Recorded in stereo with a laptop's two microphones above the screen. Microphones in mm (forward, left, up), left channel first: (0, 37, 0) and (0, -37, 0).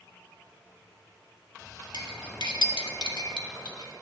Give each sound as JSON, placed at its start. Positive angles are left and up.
{"t": 1.9, "sound": "cutlery clinking", "side_deg": 80, "distance_m": 1.0}